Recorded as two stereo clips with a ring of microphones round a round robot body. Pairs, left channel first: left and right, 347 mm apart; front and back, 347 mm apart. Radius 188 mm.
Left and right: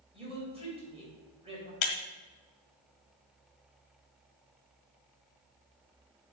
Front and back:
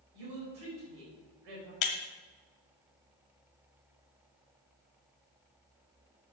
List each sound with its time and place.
0.1 s a woman speaking: 165° right, 4 m
1.8 s breaking glass: 45° left, 1.0 m